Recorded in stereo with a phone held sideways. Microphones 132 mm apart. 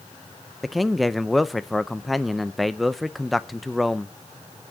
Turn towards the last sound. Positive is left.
turn(degrees=0)  # may be behind; listen again after turning